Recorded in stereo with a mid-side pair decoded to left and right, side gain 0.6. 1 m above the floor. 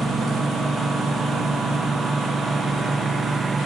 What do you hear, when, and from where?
0.0 s a lawn mower: 25° right